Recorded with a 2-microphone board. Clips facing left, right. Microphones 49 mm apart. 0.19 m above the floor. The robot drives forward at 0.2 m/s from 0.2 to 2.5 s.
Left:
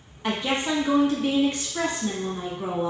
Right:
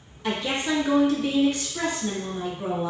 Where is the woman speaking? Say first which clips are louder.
Left 1 dB; 35° left (ahead or behind), 1.1 m; by 2.9 s 30° left (ahead or behind), 1.3 m.